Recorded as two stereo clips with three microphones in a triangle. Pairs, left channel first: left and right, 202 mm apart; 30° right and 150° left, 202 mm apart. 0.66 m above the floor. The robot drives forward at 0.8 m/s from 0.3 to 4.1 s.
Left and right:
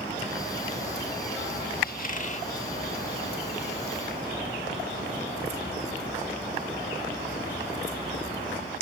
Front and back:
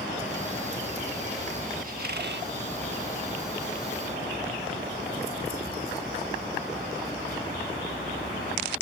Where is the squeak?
115° left; by 2.5 s 140° left.